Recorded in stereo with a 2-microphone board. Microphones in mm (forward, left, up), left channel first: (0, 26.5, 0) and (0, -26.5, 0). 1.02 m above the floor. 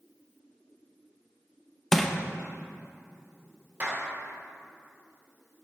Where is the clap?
30° right (ahead or behind), 2.5 m.